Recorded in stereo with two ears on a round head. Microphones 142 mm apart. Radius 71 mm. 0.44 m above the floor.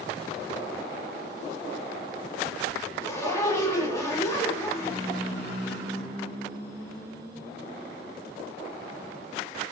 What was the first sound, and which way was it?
A zipper, 20° left (ahead or behind).